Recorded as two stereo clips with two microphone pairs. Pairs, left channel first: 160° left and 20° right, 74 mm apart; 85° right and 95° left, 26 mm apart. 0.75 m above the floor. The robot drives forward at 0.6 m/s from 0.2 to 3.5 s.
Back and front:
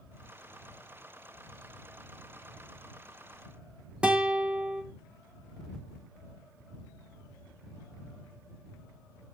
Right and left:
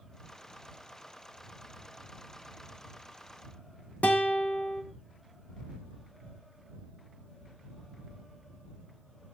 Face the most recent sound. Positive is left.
turn(degrees=-95)